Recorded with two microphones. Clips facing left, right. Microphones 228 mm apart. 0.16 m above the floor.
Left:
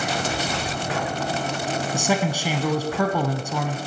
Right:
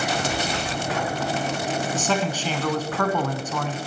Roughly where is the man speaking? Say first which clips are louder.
Left 4 dB; centre.